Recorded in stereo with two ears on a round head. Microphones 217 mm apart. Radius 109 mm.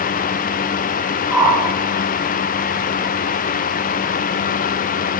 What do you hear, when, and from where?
1.3 s a whoosh: 5° right (ahead or behind), 4.5 m